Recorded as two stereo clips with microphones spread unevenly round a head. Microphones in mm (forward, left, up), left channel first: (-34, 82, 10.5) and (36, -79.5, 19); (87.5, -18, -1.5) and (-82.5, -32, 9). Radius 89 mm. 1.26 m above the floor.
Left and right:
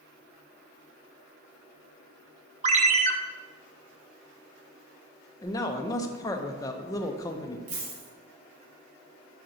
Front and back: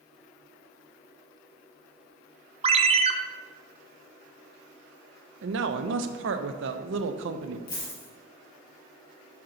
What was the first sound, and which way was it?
A ringtone, 120° right.